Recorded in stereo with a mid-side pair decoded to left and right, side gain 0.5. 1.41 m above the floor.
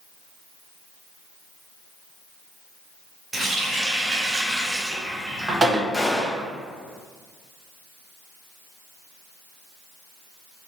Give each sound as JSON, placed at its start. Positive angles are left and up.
{"t": 3.3, "sound": "a running tap", "azimuth_deg": -20, "distance_m": 1.1}
{"t": 5.9, "sound": "a gunshot", "azimuth_deg": 0, "distance_m": 1.4}